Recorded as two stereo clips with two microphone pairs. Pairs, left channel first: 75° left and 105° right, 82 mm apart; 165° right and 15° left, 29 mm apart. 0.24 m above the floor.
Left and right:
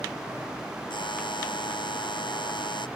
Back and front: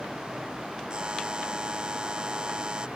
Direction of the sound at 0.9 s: 70° left.